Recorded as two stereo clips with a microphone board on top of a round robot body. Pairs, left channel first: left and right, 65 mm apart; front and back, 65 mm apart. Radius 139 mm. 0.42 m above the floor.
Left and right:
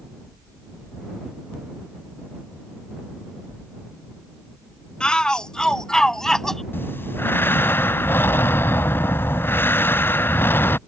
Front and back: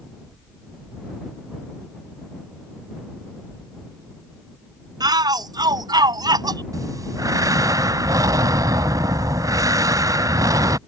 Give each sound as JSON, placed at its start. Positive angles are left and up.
{"t": 5.0, "sound": "a shout", "azimuth_deg": 170}
{"t": 6.7, "sound": "breathing", "azimuth_deg": 145}